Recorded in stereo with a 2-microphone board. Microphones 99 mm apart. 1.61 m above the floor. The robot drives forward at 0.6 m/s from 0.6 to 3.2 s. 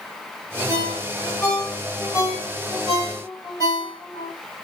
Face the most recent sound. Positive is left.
turn(degrees=35)  # may be behind; listen again after turning